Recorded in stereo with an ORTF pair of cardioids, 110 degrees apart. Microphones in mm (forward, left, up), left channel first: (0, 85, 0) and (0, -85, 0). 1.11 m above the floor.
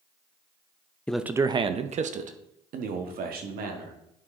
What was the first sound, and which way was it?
A man speaking, 5° left.